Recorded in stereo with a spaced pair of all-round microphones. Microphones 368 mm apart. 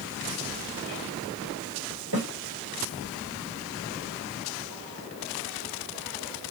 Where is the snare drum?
70° right (ahead or behind), 1.5 m.